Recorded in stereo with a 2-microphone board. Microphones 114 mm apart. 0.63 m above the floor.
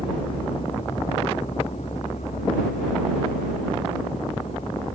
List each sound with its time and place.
0.0 s a vehicle: 50° left (ahead or behind); by 5.0 s 65° left (ahead or behind)